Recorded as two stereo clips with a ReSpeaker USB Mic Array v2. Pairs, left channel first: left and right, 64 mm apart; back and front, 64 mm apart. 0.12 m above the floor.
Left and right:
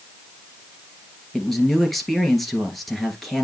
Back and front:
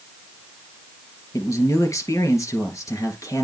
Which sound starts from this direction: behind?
A man speaking, at 1.3 s.